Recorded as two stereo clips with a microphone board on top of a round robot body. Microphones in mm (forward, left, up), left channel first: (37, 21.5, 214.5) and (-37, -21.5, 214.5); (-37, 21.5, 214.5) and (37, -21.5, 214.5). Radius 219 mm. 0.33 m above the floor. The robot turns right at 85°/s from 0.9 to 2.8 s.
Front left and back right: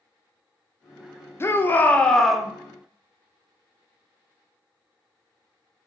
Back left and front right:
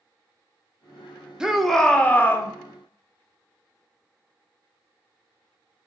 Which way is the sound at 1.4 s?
40° left.